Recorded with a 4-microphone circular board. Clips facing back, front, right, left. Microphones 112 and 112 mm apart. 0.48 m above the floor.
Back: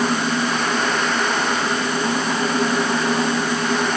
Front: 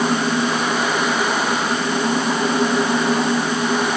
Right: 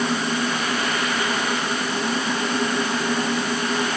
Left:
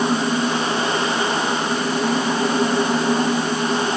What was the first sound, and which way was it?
Only background noise.